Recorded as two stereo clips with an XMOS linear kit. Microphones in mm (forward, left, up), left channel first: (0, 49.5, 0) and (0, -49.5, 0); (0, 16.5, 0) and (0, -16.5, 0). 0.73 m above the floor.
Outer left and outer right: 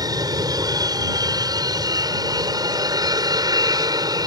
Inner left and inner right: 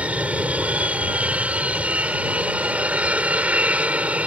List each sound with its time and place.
0.0 s an aircraft: 40° right (ahead or behind)